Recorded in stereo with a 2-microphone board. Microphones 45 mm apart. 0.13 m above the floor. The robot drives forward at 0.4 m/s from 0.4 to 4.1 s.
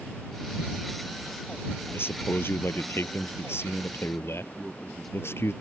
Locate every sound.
1.9 s a man speaking: 55° left (ahead or behind); by 5.5 s 60° left (ahead or behind)
4.5 s a man speaking: 5° left (ahead or behind)